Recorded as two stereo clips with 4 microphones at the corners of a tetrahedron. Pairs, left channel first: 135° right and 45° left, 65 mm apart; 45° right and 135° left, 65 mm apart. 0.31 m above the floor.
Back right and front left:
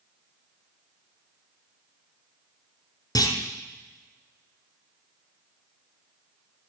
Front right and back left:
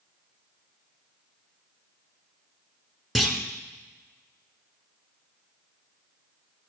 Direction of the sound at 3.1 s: 135° right.